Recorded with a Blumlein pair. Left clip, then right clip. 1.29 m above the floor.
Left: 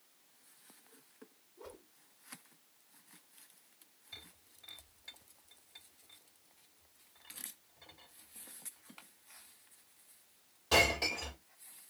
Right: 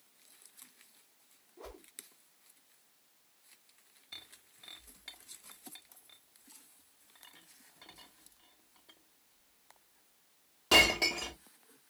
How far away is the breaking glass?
About 1.5 m.